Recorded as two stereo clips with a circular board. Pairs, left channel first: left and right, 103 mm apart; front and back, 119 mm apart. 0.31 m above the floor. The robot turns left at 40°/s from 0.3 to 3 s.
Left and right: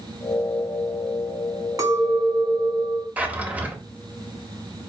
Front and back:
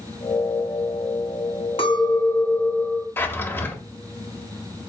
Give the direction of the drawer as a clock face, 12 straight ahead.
1 o'clock.